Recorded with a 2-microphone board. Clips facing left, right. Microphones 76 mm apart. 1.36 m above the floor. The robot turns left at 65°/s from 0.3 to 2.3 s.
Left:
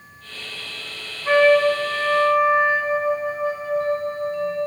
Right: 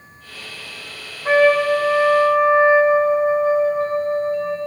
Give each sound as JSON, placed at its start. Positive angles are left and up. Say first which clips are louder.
{"t": 1.2, "sound": "a trumpet", "louder": "right 1 dB", "azimuth_deg": -45, "distance_m": 2.5}